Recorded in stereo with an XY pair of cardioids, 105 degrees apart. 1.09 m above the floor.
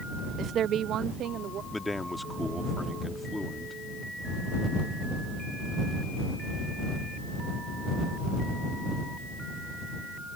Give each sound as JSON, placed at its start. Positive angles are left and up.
{"t": 0.4, "sound": "a woman speaking", "azimuth_deg": -65}
{"t": 1.7, "sound": "a man speaking", "azimuth_deg": 10}